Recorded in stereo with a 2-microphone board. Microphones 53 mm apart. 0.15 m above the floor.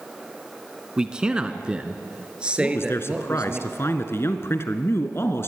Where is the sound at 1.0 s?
15° right (ahead or behind), 1.4 m; by 3.6 s 20° right (ahead or behind), 3 m.